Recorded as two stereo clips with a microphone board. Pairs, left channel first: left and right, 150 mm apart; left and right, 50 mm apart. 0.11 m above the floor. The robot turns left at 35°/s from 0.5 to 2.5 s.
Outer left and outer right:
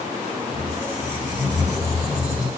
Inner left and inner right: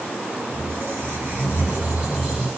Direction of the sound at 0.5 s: 115° right.